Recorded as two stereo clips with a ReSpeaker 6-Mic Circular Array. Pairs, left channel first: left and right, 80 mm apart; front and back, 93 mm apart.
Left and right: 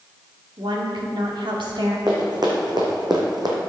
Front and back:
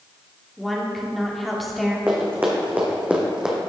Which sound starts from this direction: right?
A woman speaking, at 0.6 s.